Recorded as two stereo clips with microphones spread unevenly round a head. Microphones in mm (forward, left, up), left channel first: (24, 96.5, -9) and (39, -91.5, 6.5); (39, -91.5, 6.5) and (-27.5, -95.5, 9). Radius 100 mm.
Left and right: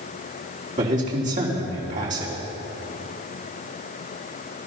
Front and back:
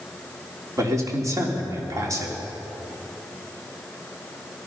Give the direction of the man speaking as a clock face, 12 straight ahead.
5 o'clock.